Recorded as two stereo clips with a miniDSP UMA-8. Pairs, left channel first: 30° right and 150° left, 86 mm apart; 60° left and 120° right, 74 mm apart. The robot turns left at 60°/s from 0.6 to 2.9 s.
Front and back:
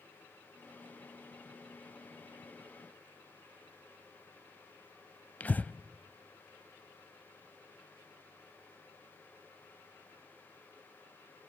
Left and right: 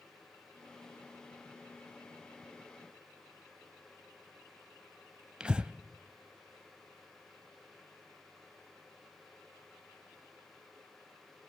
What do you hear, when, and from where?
5.4 s breathing: 65° right, 0.7 m